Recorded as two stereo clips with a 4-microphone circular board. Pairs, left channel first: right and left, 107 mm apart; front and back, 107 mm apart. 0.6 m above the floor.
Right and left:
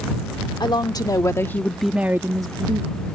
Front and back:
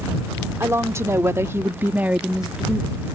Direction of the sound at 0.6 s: 120° right.